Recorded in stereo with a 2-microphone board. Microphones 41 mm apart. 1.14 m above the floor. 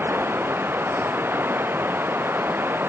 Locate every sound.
0.0 s running water: 60° right (ahead or behind)